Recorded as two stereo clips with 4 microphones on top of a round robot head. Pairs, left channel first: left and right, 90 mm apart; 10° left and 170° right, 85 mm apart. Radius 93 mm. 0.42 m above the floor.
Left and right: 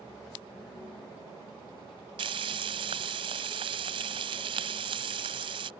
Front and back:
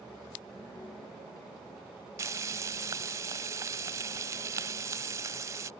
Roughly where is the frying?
Behind right.